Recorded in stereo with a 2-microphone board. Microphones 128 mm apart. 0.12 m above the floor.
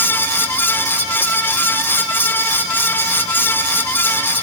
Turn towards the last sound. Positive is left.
No sound to turn to.